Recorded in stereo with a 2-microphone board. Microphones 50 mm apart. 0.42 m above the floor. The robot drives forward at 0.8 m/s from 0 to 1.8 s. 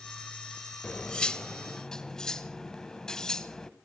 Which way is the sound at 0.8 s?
25° left (ahead or behind).